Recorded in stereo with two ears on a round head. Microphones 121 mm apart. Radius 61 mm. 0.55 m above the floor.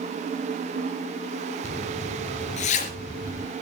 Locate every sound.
1.6 s a zipper: 55° left (ahead or behind), 2.5 m